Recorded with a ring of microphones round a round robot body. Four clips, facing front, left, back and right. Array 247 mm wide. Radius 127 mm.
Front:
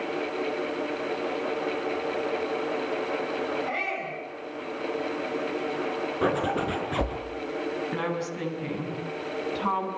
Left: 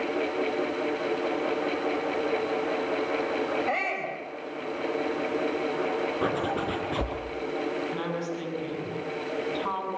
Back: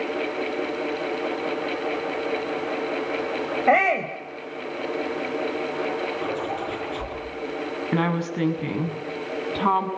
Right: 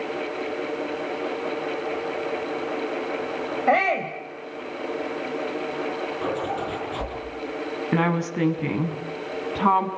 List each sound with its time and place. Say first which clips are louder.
3.7 s a shout: right 9 dB, back 12 dB; 150° right, 3.5 m
6.2 s a zipper: right 1 dB, front 2 dB; 25° left, 6 m
7.9 s a woman speaking: right 7 dB, back 5 dB; 120° right, 6 m